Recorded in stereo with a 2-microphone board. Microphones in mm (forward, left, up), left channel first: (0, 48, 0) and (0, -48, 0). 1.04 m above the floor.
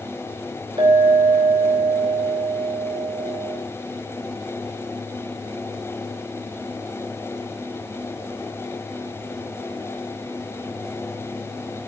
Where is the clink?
55° right (ahead or behind), 2.5 m.